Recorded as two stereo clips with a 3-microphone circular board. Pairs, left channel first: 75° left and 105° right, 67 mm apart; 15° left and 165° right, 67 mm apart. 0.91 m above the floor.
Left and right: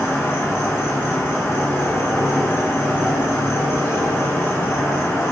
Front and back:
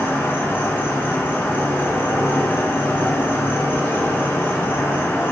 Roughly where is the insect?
Ahead left.